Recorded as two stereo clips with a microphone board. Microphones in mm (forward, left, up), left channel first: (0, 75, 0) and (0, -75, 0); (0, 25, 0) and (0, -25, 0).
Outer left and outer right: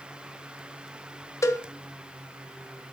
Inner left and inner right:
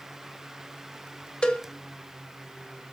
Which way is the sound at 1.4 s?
20° left (ahead or behind).